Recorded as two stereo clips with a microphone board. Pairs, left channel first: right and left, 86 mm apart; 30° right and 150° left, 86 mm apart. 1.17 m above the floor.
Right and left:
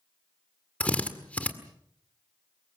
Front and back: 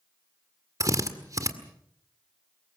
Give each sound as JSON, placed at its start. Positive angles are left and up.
{"t": 0.8, "sound": "a drill", "azimuth_deg": -165, "distance_m": 1.8}